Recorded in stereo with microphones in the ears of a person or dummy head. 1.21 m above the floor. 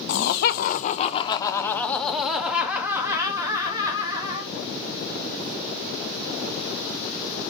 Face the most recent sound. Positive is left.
turn(degrees=-25)  # may be behind; listen again after turning